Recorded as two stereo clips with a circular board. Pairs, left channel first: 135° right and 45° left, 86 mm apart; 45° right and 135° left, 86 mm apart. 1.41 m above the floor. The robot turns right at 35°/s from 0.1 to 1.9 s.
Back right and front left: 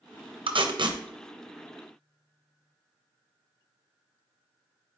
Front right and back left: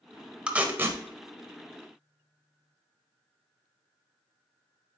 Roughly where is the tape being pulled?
Ahead left.